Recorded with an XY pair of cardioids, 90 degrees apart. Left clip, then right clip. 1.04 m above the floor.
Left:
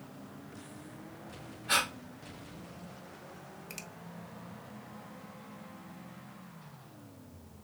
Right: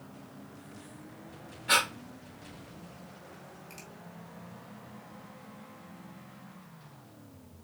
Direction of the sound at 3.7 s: 55° left.